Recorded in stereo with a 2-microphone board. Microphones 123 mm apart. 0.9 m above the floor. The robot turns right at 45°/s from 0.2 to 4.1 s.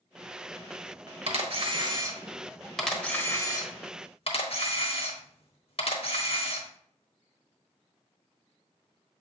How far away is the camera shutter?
About 1.2 m.